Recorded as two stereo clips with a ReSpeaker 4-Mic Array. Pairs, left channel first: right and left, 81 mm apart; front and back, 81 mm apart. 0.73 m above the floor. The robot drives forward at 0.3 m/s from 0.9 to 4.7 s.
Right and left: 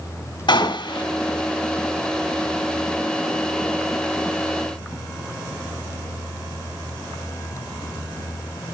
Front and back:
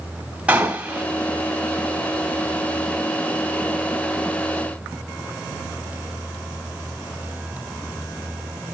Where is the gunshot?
105° right, 2.5 m; by 1.0 s 110° right, 2.5 m.